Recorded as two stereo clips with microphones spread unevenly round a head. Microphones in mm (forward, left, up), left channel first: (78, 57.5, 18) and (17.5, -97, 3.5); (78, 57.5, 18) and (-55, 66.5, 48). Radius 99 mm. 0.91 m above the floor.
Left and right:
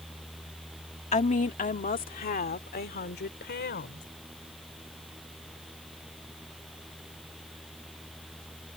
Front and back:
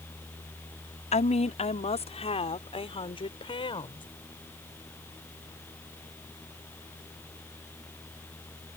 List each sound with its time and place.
1.1 s a woman speaking: 20° left; by 4.0 s 50° left